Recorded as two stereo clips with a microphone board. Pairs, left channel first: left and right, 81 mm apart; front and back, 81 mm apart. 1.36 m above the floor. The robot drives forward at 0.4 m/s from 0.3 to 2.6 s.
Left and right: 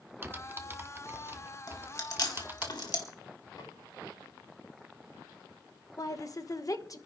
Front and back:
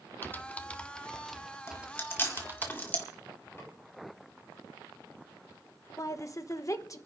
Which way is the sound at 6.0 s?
45° left.